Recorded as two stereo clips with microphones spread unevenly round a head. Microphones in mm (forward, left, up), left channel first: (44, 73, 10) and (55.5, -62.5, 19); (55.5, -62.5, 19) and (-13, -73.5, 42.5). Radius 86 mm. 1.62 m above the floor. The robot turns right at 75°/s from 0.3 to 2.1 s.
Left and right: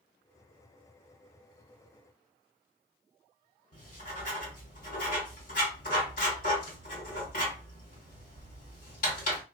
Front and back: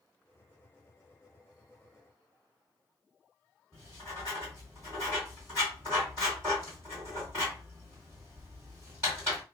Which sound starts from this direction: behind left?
Writing, at 3.7 s.